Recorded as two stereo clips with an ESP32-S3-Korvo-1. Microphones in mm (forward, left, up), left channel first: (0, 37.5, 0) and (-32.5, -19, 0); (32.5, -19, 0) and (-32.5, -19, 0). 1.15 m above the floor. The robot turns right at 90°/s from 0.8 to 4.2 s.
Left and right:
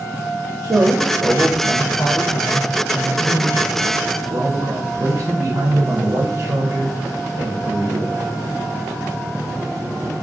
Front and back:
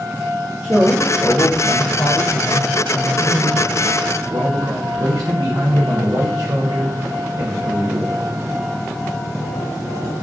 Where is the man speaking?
105° right, 0.6 m; by 8.2 s 160° right, 0.6 m.